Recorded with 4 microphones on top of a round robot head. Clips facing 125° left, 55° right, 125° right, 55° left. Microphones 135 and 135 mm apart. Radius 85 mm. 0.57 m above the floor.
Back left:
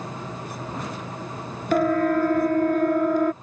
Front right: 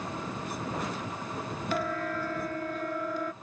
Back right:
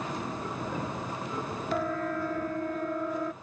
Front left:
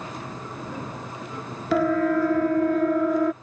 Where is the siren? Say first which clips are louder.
Back left 13 dB, front left 11 dB; 80° left.